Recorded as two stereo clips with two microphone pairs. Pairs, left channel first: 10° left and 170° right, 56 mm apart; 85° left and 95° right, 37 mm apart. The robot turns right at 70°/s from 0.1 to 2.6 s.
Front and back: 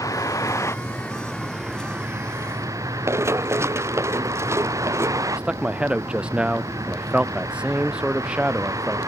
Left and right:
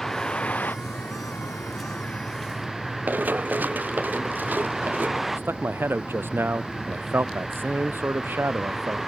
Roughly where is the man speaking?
Right.